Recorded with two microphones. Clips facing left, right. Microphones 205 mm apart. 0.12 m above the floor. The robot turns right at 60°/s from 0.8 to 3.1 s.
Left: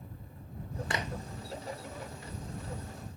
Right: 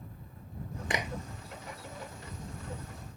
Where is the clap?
20° right (ahead or behind); by 1.1 s 10° right (ahead or behind).